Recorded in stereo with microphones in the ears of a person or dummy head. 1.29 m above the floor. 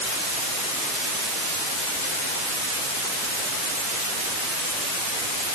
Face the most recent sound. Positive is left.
No sound to turn to.